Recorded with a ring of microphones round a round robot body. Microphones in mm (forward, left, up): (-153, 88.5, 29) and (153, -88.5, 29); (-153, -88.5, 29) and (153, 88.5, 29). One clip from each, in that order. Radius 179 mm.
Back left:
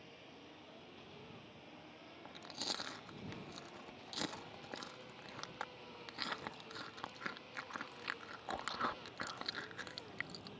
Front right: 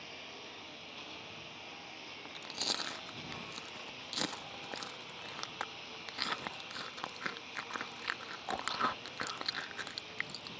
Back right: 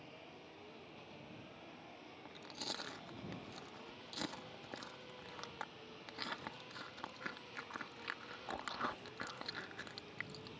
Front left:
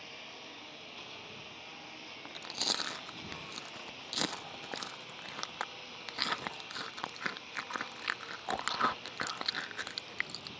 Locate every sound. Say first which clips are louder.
0.0 s a lawn mower: front right 10 dB, front left 9 dB; 5° left; by 10.6 s 15° right
2.2 s chewing: front right 6 dB, front left 11 dB; 30° left